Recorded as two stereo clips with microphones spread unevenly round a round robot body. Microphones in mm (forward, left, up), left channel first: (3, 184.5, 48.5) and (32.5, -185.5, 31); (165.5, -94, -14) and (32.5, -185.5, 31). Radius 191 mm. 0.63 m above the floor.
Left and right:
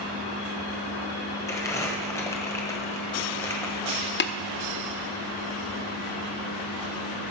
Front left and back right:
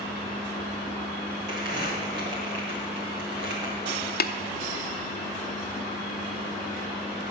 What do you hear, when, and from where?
1.5 s crumpling: straight behind, 1.6 m
4.2 s tapping: 30° left, 0.8 m